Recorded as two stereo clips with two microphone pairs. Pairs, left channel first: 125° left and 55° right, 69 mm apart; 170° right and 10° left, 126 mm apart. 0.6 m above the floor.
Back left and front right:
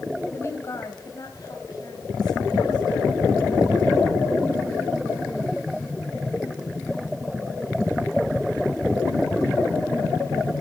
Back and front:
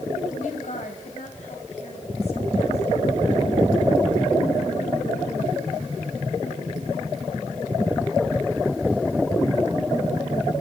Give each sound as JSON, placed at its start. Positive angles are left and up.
{"t": 0.3, "sound": "a woman speaking", "azimuth_deg": 180, "distance_m": 3.0}